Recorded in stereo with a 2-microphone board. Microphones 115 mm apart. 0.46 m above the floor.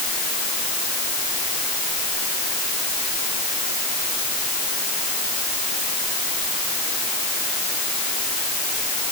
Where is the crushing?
No crushing in this recording.